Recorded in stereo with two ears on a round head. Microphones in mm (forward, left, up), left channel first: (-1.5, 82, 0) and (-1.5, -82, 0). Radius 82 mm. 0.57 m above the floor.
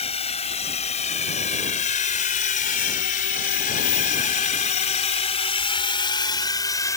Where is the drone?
35° left (ahead or behind); by 7.0 s 20° left (ahead or behind).